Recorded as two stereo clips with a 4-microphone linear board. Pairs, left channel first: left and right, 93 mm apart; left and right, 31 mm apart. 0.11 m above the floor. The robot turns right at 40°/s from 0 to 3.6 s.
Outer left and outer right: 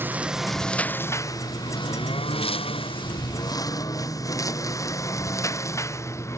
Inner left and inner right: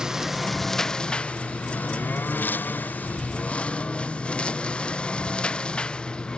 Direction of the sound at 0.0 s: 25° right (ahead or behind).